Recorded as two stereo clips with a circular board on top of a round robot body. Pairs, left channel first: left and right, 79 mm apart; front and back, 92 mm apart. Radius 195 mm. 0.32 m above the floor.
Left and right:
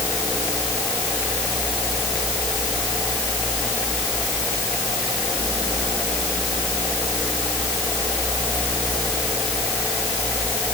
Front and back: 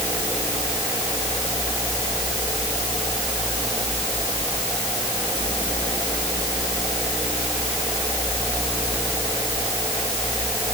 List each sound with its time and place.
Only background noise.